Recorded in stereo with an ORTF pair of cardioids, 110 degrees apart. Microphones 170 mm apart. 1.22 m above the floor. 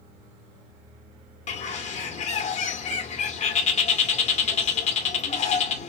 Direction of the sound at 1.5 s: 45° left.